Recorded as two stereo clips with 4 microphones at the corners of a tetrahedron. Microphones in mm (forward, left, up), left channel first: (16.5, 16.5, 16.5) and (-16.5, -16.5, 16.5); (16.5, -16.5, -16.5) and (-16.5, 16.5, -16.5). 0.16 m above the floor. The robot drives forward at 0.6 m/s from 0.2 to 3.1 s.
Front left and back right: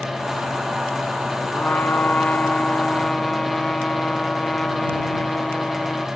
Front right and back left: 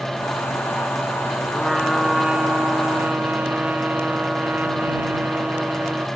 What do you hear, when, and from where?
1.5 s a trumpet: 40° left, 1.1 m; by 6.1 s 120° left, 1.0 m